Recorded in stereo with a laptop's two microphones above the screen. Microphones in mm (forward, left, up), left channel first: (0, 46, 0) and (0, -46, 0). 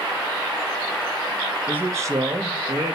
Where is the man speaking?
15° right (ahead or behind), 1.2 m; by 3.0 s 70° right (ahead or behind), 1.6 m.